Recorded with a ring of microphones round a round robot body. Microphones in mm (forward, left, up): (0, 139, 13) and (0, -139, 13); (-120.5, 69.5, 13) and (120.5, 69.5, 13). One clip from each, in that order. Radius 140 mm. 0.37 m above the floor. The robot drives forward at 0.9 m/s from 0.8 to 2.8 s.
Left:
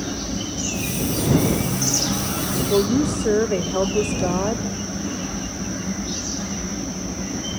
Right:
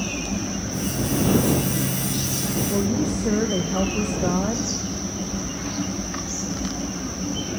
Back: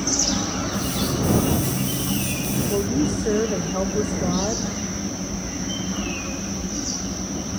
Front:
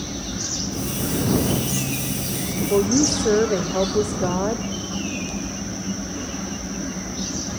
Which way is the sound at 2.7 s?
30° left.